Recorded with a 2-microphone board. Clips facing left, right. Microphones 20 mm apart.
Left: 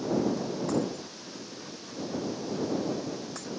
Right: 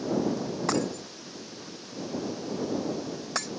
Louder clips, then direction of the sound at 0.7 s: Right 4 dB; 45° right (ahead or behind).